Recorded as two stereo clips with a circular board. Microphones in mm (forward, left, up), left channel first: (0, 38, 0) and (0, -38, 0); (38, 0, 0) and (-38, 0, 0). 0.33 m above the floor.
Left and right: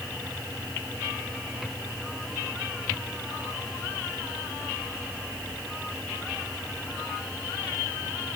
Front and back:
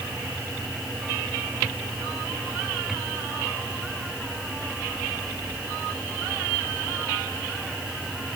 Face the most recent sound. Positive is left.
No sound to turn to.